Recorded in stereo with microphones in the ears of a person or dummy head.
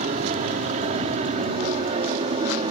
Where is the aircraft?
30° right (ahead or behind); by 2.7 s 25° right (ahead or behind).